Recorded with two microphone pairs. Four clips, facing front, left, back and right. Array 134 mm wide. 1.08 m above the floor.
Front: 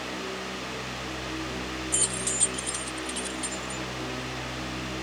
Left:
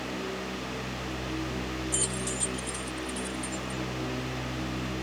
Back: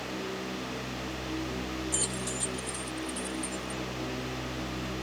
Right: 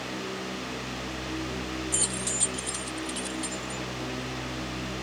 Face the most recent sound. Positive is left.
turn(degrees=-70)